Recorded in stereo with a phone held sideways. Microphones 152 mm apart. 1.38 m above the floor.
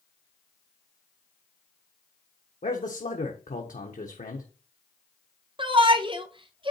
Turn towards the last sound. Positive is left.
turn(degrees=-35)  # may be behind; listen again after turning